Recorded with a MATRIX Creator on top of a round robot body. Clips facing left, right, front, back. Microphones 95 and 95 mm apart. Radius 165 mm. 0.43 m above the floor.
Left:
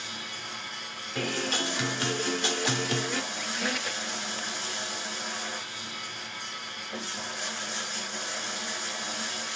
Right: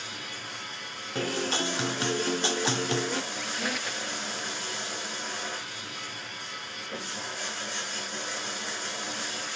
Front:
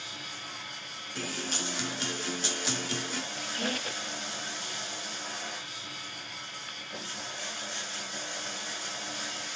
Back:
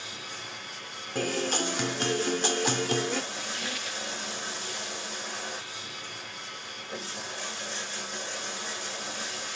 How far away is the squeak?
About 0.6 m.